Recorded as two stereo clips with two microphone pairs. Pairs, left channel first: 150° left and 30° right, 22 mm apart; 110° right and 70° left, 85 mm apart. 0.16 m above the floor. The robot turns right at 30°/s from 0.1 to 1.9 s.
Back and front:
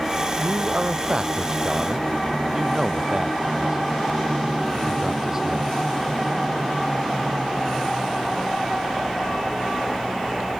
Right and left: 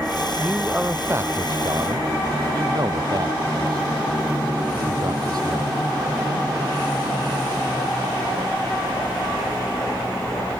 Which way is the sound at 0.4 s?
10° right.